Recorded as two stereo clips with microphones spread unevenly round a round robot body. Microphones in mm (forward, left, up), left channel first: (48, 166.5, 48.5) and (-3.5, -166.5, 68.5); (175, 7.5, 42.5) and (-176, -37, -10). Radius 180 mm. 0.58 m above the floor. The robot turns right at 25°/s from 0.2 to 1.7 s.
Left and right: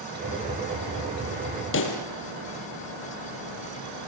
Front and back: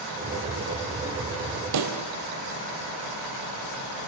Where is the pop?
140° left, 4 m.